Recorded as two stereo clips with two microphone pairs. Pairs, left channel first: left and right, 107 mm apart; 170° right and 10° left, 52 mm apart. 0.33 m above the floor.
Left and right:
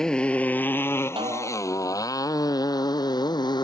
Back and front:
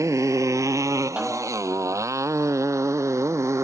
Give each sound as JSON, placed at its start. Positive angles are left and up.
{"t": 0.0, "sound": "a motorcycle", "azimuth_deg": 5}
{"t": 1.2, "sound": "a snare drum", "azimuth_deg": -50}